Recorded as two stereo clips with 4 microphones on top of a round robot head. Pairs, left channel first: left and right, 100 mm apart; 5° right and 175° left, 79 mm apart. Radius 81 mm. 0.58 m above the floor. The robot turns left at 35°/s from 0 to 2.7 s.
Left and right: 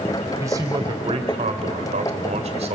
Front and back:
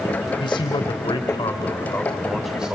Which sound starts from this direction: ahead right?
A man speaking, at 0.4 s.